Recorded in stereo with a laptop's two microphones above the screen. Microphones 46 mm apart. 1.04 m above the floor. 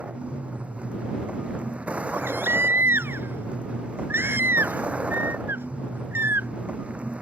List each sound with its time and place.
0.0 s a vehicle: 30° right (ahead or behind)
2.1 s a baby crying: 55° right (ahead or behind)